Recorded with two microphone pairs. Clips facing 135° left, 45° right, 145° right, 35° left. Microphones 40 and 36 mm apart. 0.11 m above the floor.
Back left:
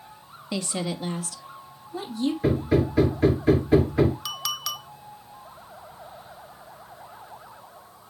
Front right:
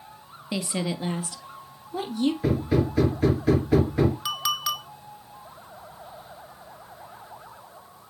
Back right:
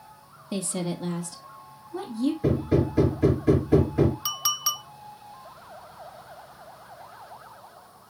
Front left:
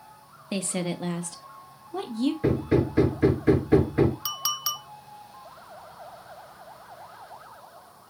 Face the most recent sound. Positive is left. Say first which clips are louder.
# front right 4 dB, back right 2 dB
turn(degrees=-65)